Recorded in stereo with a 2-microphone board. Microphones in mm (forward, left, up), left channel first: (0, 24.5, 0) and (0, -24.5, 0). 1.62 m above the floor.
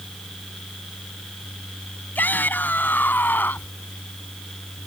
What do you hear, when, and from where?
2.1 s a shout: 40° left (ahead or behind)